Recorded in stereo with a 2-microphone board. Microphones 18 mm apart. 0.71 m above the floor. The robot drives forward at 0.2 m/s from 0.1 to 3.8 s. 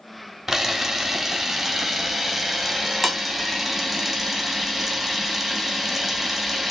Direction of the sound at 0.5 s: 20° right (ahead or behind).